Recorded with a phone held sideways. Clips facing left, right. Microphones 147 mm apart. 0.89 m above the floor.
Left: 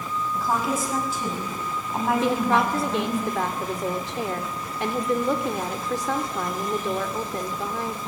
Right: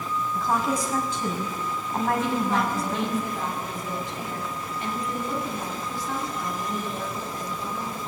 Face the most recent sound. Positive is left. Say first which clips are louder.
# left 3 dB
turn(degrees=80)